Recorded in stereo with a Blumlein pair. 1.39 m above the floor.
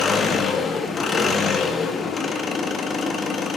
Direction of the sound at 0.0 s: 20° left.